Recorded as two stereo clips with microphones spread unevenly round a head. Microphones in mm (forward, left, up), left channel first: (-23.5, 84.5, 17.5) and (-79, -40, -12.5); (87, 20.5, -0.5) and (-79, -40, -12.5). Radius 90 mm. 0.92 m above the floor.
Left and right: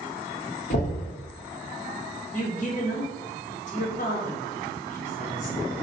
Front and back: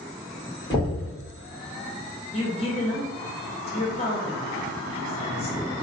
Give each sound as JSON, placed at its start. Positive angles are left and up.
{"t": 0.7, "sound": "knocking", "azimuth_deg": 95, "distance_m": 1.2}
{"t": 2.3, "sound": "a woman speaking", "azimuth_deg": 70, "distance_m": 1.0}